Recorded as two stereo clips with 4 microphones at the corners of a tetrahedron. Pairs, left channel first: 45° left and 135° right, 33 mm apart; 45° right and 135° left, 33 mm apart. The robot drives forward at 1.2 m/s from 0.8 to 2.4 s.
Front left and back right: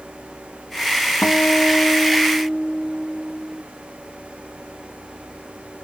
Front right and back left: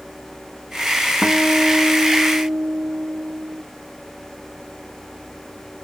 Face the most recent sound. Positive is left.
turn(degrees=145)